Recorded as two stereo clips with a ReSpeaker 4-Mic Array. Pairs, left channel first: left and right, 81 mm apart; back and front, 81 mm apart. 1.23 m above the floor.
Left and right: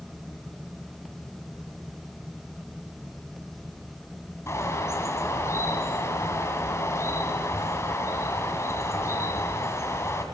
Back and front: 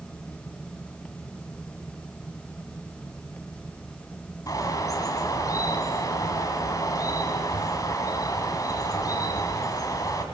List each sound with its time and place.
4.5 s a bird: 145° left, 2.5 m